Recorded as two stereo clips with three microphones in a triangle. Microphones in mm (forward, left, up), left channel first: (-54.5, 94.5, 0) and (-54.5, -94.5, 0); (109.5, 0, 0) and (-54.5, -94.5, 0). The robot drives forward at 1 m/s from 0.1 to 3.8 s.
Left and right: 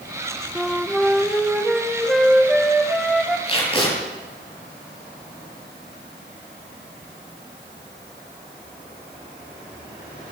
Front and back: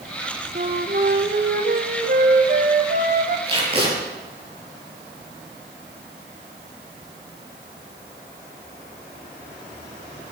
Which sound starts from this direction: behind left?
Tape being pulled, at 3.5 s.